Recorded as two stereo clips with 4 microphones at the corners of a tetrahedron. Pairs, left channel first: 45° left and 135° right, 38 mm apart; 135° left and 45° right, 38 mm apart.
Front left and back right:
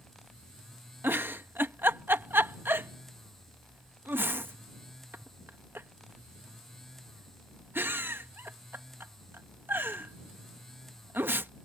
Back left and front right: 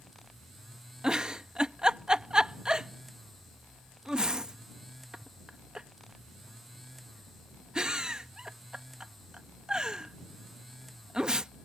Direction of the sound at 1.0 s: 115° right.